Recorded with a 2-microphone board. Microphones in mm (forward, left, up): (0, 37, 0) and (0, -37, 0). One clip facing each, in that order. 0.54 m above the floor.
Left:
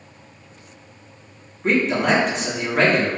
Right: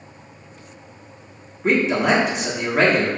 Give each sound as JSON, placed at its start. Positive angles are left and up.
{"t": 1.6, "sound": "a man speaking", "side_deg": -5, "distance_m": 0.9}